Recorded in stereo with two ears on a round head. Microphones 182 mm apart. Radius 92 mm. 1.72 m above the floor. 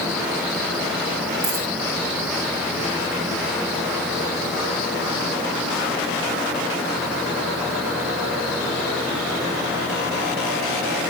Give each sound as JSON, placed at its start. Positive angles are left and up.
{"t": 1.4, "sound": "a dropped coin", "side_deg": -70, "distance_m": 6.5}